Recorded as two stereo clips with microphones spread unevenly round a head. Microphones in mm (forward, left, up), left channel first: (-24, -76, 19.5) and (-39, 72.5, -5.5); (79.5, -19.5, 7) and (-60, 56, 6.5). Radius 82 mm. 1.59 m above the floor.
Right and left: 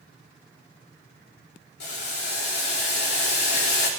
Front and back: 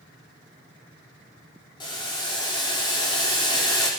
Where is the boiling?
95° right, 4 m.